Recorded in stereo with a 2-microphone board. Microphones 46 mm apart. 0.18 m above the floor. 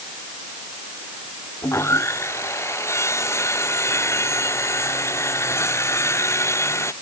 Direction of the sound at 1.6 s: 70° left (ahead or behind).